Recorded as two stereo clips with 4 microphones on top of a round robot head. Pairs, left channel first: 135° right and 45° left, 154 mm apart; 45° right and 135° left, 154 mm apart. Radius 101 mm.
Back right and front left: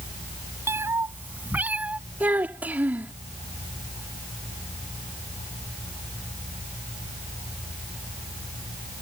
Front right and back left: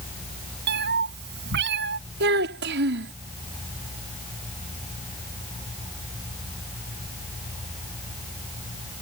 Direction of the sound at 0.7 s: 120° left.